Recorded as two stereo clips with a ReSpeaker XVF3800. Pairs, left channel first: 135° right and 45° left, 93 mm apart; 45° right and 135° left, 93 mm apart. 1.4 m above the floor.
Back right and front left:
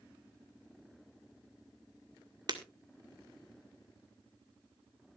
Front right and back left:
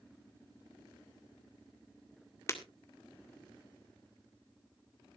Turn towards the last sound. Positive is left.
turn(degrees=10)